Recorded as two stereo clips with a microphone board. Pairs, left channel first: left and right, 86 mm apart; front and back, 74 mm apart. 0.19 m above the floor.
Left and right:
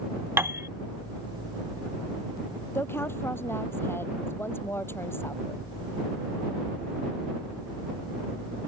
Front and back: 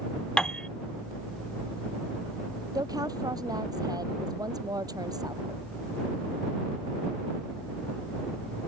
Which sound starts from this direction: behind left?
A woman speaking, at 2.8 s.